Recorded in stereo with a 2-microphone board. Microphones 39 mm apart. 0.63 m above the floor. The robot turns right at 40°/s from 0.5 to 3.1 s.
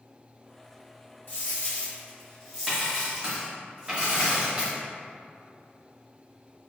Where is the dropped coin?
130° left, 1.4 m; by 4.8 s 160° right, 1.4 m.